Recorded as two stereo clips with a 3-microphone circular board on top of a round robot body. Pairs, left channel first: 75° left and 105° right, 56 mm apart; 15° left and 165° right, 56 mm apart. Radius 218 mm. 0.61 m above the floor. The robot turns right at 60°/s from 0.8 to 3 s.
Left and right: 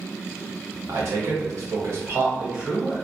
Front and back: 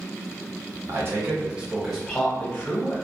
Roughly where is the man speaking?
Behind right.